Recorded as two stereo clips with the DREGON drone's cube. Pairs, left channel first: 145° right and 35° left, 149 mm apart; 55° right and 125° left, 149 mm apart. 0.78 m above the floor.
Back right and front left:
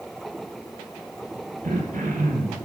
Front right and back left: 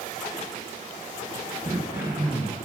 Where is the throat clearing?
55° left, 3 m.